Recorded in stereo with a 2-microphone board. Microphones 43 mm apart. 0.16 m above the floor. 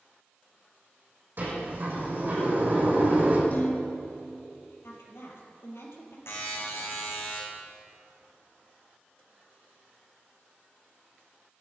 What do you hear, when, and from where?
1.4 s a sliding door: 50° right (ahead or behind), 7 m
3.5 s dishes clattering: 40° left (ahead or behind), 4 m
4.8 s a woman speaking: 70° left (ahead or behind), 5 m
6.3 s a buzzer: 80° left, 5 m